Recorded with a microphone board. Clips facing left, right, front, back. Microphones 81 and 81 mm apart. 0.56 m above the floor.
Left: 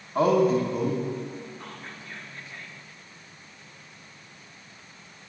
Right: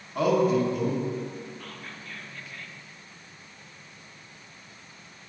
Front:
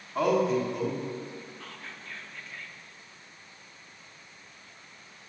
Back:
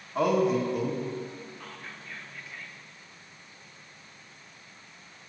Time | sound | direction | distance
0.1 | a man speaking | 95° left | 1.2 m
1.6 | whispering | 105° left | 0.7 m